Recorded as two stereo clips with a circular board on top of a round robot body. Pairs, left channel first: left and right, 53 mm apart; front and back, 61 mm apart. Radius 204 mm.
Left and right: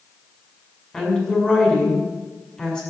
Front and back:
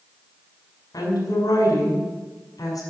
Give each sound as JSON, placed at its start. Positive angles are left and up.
{"t": 0.9, "sound": "a woman speaking", "azimuth_deg": 15, "distance_m": 6.0}